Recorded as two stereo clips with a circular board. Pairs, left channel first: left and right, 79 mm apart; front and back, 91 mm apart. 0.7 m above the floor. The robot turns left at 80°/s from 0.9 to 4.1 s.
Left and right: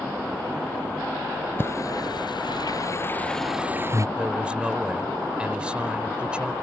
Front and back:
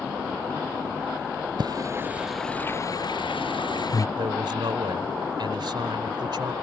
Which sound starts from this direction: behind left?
Singing, at 1.6 s.